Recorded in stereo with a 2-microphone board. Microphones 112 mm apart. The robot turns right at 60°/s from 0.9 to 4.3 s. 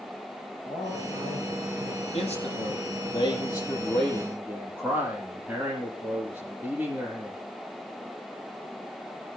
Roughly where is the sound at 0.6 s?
Ahead left.